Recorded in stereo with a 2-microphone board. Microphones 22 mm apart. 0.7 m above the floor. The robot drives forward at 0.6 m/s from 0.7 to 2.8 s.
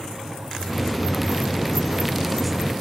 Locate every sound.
0.3 s a microwave: 20° left (ahead or behind), 2.5 m; by 2.7 s 35° left (ahead or behind), 1.6 m